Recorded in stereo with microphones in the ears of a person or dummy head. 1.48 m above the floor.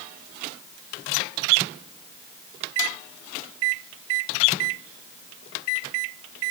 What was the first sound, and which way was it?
Only background noise.